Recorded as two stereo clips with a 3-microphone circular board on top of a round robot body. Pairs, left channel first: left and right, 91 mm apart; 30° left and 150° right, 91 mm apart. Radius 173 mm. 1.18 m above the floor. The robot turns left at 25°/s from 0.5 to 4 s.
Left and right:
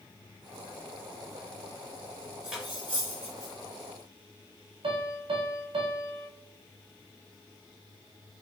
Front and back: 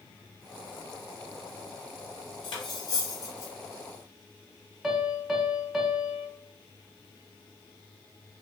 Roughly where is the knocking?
I don't hear knocking.